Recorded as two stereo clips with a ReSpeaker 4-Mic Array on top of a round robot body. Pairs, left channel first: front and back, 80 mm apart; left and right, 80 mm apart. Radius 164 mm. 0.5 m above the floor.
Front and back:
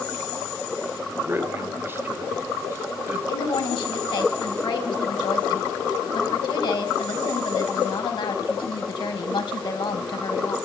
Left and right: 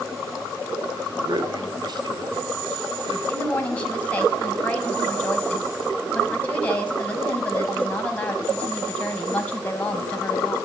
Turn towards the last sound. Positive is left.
turn(degrees=15)